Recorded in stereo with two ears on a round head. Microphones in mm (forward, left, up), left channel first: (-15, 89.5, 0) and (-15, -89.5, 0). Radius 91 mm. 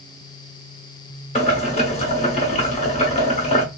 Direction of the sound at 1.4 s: 35° left (ahead or behind).